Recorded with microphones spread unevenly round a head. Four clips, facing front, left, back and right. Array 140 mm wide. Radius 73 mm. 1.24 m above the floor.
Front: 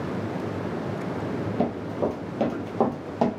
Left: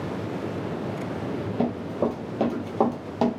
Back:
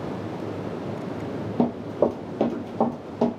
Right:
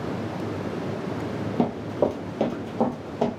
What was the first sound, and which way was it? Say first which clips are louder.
Running footsteps: right 2 dB, back 5 dB; 140° right.